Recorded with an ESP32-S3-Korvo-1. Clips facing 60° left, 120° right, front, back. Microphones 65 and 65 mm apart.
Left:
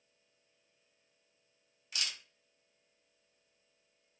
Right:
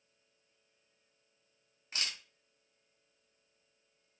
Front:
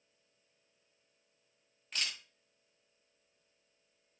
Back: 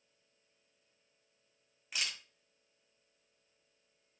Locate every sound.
1.9 s a camera shutter: 105° right, 0.7 m